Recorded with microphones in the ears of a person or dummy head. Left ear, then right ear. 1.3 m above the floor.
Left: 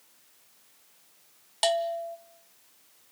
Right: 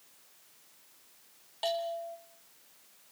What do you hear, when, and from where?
1.6 s a bell: 40° left (ahead or behind), 0.7 m